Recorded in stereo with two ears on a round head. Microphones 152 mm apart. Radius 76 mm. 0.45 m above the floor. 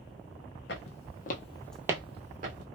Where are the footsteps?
70° left (ahead or behind), 1.1 m; by 2.7 s 55° right (ahead or behind), 1.1 m.